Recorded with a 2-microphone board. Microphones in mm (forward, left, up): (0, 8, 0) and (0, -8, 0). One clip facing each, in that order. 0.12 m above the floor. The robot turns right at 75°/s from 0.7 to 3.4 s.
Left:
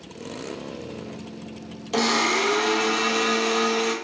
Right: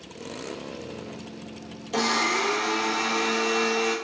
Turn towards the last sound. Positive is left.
turn(degrees=135)